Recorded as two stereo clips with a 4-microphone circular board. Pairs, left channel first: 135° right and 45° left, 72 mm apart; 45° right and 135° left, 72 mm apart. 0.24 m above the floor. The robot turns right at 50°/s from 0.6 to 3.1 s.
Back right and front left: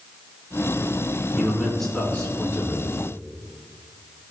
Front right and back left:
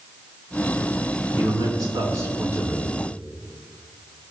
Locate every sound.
1.4 s a man speaking: 120° left, 3 m; by 2.9 s 160° right, 3 m